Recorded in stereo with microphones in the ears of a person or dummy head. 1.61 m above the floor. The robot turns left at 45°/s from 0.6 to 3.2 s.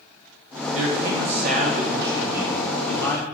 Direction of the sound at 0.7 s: 90° right.